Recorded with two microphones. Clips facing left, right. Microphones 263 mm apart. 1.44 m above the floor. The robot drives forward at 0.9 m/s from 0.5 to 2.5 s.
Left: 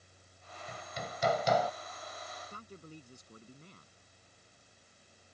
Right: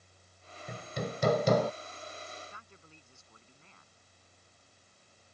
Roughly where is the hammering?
Right.